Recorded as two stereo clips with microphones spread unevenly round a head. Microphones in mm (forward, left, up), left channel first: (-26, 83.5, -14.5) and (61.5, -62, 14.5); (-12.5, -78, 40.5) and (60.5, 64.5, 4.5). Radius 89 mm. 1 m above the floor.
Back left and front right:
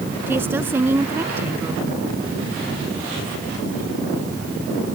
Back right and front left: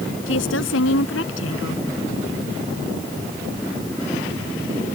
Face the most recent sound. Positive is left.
turn(degrees=-140)